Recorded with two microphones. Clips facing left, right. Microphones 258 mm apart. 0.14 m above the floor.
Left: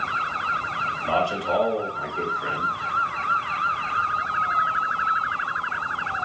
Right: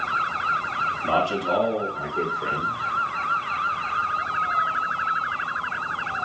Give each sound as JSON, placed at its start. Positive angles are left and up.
{"t": 1.0, "sound": "a man speaking", "side_deg": -40, "distance_m": 2.0}